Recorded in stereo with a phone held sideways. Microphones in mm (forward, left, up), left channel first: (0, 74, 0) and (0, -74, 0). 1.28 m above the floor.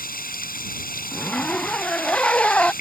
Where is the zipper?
10° left (ahead or behind).